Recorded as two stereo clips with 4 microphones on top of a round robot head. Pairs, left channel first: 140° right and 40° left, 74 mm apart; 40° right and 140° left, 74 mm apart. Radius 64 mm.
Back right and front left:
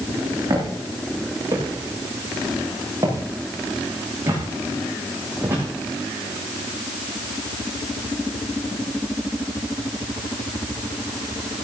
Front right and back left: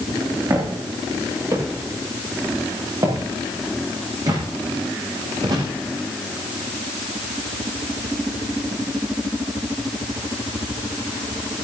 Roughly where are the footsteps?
Left.